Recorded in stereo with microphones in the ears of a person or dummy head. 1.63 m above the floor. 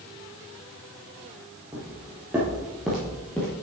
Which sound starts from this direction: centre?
Footsteps, at 1.7 s.